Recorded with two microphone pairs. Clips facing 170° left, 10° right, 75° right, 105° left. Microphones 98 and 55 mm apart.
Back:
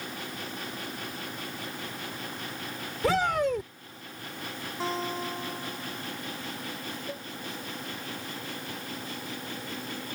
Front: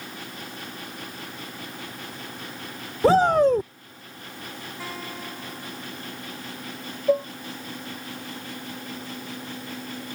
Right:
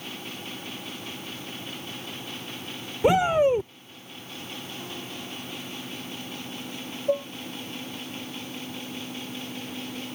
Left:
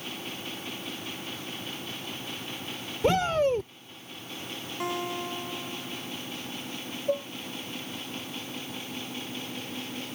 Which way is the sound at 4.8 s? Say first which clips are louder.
Back 6 dB, left 6 dB; 110° left.